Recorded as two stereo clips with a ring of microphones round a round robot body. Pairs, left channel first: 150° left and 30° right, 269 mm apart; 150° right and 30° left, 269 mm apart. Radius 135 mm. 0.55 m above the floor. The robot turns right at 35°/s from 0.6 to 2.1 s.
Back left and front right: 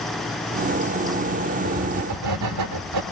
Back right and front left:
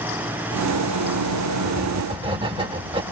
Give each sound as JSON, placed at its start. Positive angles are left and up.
{"t": 1.6, "sound": "writing", "azimuth_deg": -55, "distance_m": 1.2}